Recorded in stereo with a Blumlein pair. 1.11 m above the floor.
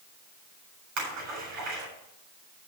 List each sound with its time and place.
1.0 s a splash: 40° right, 7.5 m